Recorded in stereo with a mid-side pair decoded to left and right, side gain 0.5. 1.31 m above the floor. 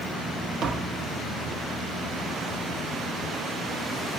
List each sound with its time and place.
0.6 s tapping: 65° right, 1.5 m